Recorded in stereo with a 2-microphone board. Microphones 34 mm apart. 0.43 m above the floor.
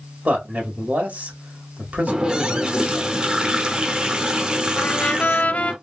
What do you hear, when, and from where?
0.2 s a man speaking: 55° right (ahead or behind), 1.6 m
2.1 s a running tap: 25° right (ahead or behind), 0.6 m
4.8 s a trumpet: 50° left (ahead or behind), 0.5 m